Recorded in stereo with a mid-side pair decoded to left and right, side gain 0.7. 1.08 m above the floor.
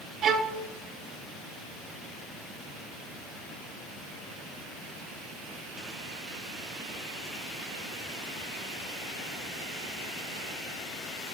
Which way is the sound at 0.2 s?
40° right.